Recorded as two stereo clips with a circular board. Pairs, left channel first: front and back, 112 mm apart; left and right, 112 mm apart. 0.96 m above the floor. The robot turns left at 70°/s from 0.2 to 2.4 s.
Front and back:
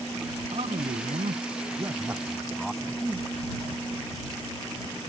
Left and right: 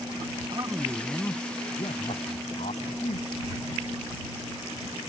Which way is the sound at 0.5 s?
140° right.